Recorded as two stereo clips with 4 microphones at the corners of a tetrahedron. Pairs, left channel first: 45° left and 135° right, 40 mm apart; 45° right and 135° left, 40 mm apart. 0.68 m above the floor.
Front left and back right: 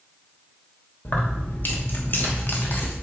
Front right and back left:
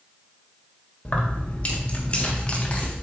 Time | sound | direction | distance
1.1 | keys jangling | 15° left | 1.4 m